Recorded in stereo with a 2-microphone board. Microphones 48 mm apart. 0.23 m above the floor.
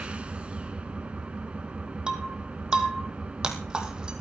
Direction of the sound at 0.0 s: 25° right (ahead or behind).